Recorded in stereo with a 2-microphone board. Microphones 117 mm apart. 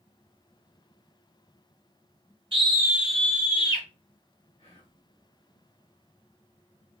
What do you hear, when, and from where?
2.5 s a scream: 50° right (ahead or behind), 0.9 m; by 3.9 s 40° left (ahead or behind), 1.3 m
4.6 s whispering: 55° left (ahead or behind), 1.5 m